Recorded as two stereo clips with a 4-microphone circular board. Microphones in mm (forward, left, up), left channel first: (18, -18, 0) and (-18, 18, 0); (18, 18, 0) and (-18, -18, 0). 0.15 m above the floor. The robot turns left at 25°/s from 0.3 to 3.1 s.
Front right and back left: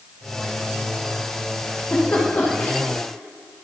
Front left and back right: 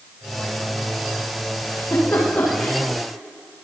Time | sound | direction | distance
1.6 | a giggle | 15° left | 9 m